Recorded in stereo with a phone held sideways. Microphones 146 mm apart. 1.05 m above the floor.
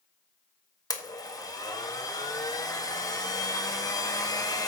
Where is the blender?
25° left (ahead or behind), 1.5 m.